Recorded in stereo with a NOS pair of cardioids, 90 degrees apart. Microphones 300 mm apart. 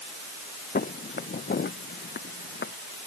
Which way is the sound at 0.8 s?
30° left.